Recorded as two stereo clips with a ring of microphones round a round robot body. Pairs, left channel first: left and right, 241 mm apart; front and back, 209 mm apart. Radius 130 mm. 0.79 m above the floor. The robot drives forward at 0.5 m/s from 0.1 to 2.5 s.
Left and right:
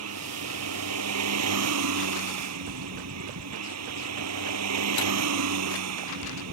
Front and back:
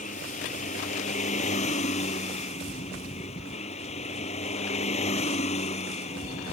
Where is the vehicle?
60° right; by 6.5 s 65° right.